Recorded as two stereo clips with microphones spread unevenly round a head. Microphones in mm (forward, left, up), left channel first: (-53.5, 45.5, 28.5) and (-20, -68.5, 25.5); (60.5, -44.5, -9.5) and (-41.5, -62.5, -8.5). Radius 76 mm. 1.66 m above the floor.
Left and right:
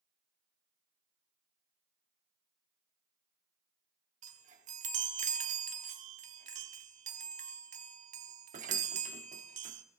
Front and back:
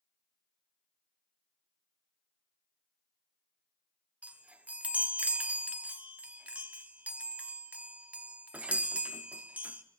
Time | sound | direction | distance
4.2 | a chime | 95° right | 0.9 m